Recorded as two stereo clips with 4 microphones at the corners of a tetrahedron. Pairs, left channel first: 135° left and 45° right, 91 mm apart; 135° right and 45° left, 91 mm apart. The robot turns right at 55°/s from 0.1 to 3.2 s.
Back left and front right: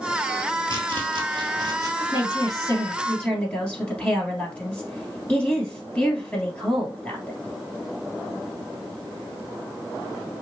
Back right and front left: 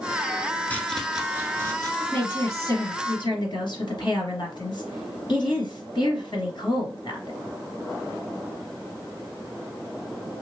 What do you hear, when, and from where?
0.7 s chopping: 65° right, 0.9 m; by 1.9 s straight ahead, 0.9 m
2.0 s a woman speaking: 145° left, 2 m; by 7.4 s 150° right, 2 m